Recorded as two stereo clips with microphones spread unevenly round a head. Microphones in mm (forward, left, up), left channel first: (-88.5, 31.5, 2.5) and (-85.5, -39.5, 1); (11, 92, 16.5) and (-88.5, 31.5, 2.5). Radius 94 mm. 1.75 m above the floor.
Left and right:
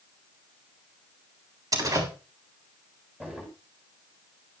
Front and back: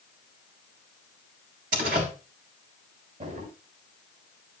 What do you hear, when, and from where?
1.7 s a door slam: 120° right, 3.5 m
3.2 s a drawer: 160° right, 6 m